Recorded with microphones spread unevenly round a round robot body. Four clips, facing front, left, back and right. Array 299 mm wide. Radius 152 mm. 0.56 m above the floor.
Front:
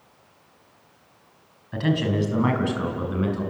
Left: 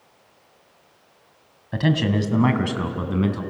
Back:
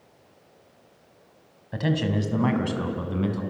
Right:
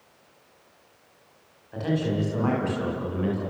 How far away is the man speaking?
About 3.5 m.